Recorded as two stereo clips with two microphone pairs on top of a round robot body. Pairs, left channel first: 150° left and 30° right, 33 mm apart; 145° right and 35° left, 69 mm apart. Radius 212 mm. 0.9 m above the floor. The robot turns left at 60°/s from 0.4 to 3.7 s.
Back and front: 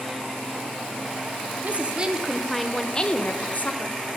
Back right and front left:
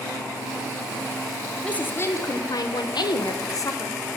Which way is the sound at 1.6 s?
65° right.